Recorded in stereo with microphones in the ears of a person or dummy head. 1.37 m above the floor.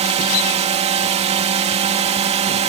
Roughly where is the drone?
Right.